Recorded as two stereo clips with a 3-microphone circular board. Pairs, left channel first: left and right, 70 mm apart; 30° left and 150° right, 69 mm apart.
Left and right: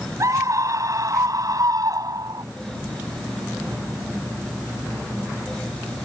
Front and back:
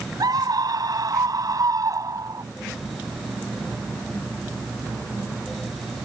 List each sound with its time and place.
0.2 s a scream: 130° right; by 2.5 s 115° right